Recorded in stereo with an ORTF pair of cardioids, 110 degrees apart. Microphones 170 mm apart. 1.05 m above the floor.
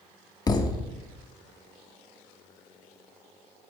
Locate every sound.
0.5 s a thud: 25° left, 1.0 m